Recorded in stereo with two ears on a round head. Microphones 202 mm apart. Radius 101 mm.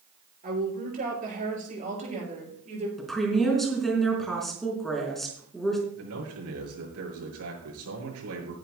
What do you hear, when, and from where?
0.4 s a woman speaking: 40° right (ahead or behind), 7 m; by 2.9 s 30° right (ahead or behind), 7.5 m
3.0 s a woman speaking: centre (ahead or behind), 4 m
6.0 s a man speaking: 75° right (ahead or behind), 7 m